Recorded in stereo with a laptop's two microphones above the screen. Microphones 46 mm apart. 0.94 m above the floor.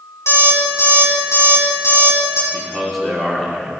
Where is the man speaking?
Centre (ahead or behind), 2.5 m.